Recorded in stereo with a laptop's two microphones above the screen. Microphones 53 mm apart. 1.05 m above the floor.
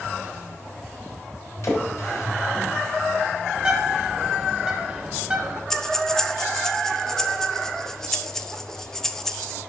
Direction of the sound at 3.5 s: 15° right (ahead or behind).